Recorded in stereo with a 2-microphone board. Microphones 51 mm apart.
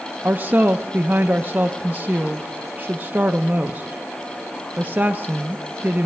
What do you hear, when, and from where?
0.2 s a woman speaking: 30° right (ahead or behind), 0.6 m